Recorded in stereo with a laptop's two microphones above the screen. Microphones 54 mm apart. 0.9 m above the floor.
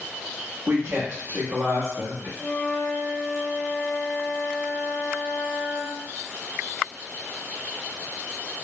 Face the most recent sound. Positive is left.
turn(degrees=25)  # may be behind; listen again after turning